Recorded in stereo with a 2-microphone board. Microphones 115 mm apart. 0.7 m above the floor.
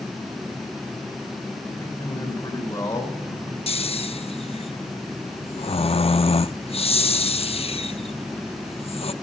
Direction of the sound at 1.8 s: 25° left (ahead or behind).